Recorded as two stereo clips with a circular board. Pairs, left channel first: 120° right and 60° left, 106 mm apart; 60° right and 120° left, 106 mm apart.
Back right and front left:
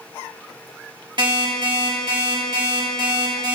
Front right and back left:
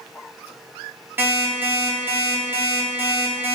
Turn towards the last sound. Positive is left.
turn(degrees=60)